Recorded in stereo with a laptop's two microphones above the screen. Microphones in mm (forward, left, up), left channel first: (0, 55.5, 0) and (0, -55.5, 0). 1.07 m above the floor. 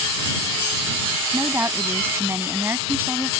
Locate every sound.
1.3 s a woman speaking: 20° right (ahead or behind)